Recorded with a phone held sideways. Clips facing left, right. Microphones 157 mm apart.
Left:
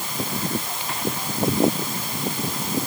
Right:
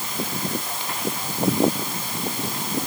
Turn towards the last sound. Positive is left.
No sound to turn to.